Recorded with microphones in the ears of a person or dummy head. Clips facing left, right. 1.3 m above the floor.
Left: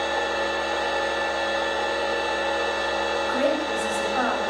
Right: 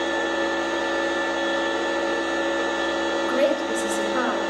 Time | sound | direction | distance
0.0 | a machine running | 35° right (ahead or behind) | 1.2 m
3.3 | a woman speaking | 75° right (ahead or behind) | 5.5 m